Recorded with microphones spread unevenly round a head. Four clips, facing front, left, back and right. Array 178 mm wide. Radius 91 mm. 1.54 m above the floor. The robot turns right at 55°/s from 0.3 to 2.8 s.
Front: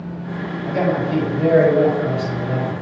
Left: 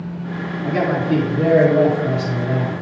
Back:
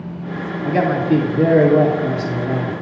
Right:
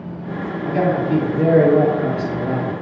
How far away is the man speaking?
About 2.5 m.